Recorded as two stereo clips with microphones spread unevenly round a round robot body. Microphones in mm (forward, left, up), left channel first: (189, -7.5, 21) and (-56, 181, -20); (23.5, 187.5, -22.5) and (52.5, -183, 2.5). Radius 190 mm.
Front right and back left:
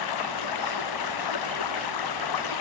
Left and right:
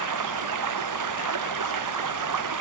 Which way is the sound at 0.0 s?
45° right.